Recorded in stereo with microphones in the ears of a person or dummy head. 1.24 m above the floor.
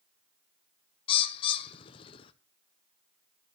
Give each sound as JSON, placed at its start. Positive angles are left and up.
{"t": 1.1, "sound": "a bird", "side_deg": 30, "distance_m": 0.8}